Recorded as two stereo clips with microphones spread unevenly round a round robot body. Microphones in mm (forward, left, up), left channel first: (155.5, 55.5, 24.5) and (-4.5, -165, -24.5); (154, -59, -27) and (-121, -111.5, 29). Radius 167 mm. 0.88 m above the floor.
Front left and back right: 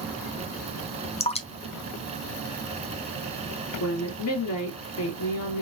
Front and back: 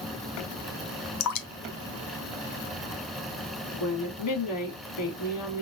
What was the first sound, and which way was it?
Dripping, 5° right.